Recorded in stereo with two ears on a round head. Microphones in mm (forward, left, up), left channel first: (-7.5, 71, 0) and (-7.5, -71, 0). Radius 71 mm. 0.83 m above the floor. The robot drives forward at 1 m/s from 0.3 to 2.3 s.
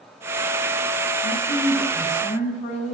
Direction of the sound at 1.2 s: 45° left (ahead or behind).